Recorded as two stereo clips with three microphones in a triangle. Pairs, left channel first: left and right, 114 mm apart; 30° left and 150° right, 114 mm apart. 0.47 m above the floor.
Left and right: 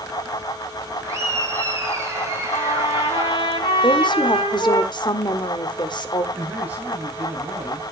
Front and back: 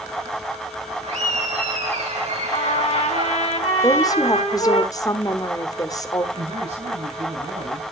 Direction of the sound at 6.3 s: 165° right.